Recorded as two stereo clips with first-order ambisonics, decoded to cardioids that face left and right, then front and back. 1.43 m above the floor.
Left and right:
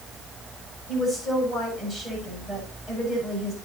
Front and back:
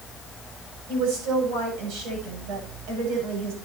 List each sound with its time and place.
0.9 s a woman speaking: 170° left, 8.5 m